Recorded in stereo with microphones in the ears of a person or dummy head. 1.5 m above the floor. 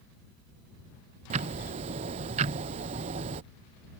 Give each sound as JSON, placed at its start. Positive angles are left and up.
{"t": 1.3, "sound": "ticking", "side_deg": -40}